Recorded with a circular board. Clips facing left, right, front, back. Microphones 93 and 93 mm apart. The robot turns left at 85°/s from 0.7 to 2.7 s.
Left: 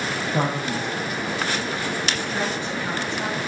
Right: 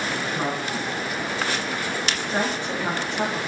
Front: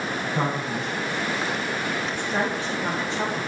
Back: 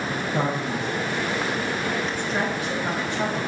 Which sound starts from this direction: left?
A man speaking, at 0.3 s.